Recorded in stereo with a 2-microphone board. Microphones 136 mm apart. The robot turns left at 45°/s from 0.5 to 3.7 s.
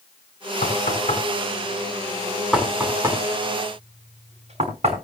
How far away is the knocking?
About 5.5 m.